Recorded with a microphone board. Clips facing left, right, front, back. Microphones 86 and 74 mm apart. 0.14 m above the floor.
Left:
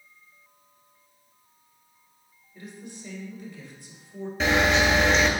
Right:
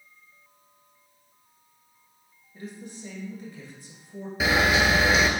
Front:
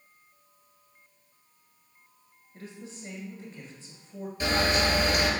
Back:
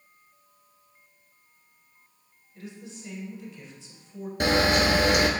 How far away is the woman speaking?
About 1.7 m.